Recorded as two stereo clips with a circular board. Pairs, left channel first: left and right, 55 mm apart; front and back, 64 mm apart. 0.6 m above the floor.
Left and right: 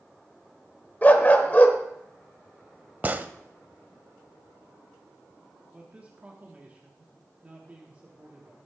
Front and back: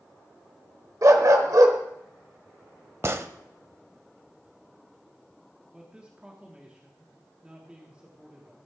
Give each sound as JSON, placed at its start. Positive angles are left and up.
{"t": 1.0, "sound": "a dog barking", "azimuth_deg": 150, "distance_m": 1.0}
{"t": 3.0, "sound": "a gunshot", "azimuth_deg": -140, "distance_m": 0.5}
{"t": 5.7, "sound": "a man speaking", "azimuth_deg": -125, "distance_m": 1.3}